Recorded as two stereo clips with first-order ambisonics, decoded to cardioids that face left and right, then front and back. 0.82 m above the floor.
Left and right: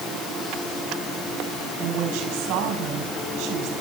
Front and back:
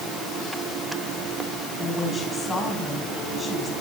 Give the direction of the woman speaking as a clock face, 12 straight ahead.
2 o'clock.